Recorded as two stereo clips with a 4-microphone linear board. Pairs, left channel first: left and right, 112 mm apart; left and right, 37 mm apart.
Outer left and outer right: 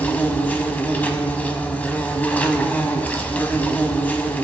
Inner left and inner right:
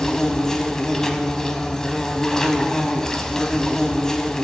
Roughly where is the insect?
Centre.